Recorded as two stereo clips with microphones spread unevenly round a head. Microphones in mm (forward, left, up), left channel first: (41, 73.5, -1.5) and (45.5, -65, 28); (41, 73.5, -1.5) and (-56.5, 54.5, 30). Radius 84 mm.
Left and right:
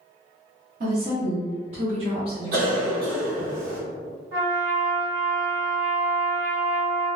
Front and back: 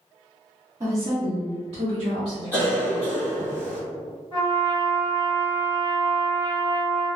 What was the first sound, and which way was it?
A woman speaking, 100° right.